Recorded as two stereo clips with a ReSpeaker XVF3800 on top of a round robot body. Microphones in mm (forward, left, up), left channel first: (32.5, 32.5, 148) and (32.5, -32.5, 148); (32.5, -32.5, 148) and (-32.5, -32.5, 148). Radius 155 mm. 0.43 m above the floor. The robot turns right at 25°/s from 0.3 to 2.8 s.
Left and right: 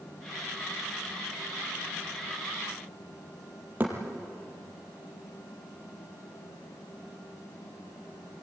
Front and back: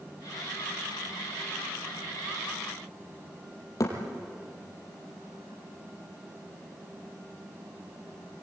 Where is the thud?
30° right, 4 m.